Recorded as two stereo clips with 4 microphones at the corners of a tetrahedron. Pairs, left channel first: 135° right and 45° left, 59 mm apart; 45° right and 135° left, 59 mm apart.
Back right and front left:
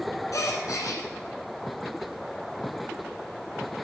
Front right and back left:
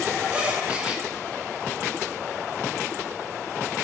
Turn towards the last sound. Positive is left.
turn(degrees=-155)